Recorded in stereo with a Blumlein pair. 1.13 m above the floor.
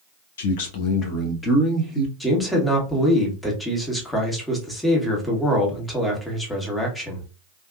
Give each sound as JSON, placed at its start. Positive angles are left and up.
{"t": 0.4, "sound": "a man speaking", "azimuth_deg": 60, "distance_m": 0.8}
{"t": 2.2, "sound": "a man speaking", "azimuth_deg": 5, "distance_m": 1.2}